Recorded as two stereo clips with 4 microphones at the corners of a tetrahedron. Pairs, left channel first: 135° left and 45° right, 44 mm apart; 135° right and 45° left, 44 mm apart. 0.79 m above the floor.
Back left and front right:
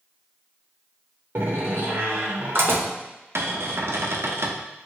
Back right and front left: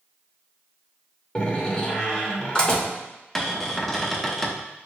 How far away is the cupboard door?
About 0.5 m.